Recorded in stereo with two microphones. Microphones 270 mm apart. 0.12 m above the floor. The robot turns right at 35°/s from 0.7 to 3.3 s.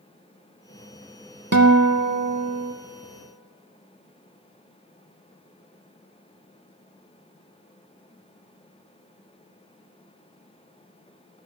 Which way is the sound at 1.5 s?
100° right.